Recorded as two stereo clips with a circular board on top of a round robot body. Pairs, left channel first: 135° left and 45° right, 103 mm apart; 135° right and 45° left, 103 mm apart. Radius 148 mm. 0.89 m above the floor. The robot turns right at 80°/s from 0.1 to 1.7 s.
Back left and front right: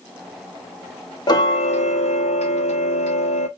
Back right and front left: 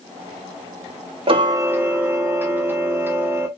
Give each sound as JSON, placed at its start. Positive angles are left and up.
{"t": 1.3, "sound": "ticking", "azimuth_deg": 80, "distance_m": 0.6}